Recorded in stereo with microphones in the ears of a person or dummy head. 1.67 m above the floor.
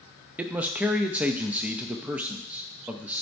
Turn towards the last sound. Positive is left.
turn(degrees=-5)  # may be behind; listen again after turning